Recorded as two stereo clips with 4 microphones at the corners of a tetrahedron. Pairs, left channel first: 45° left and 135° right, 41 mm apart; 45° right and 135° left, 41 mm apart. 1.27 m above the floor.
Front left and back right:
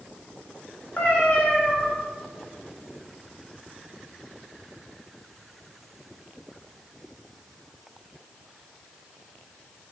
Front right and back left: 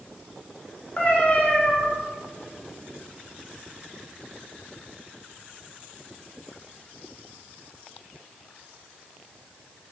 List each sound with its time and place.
1.0 s a cat meowing: straight ahead, 0.9 m